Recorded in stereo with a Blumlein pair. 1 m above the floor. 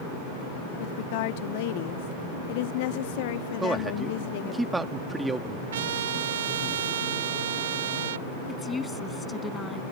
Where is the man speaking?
10° right.